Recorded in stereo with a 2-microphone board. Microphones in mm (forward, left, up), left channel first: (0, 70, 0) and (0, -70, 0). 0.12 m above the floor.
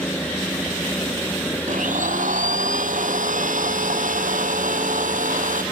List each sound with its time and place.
1.7 s a blender: 65° right (ahead or behind)